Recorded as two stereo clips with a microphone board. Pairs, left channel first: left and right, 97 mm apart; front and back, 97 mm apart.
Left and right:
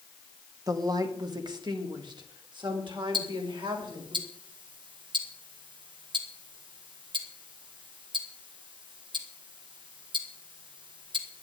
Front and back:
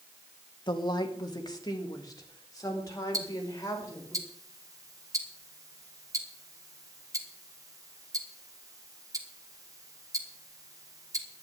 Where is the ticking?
125° right, 1.9 m.